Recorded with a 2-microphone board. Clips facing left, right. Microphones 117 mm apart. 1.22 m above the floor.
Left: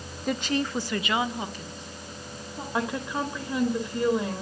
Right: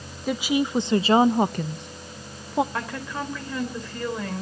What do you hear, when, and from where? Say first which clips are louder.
0.3 s a woman speaking: right 4 dB; centre (ahead or behind), 0.8 m; by 2.6 s 85° right, 1.0 m
2.7 s a woman speaking: left 2 dB; 15° left (ahead or behind), 4 m